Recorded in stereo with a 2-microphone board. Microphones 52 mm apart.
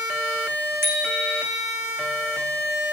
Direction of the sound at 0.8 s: 50° right (ahead or behind).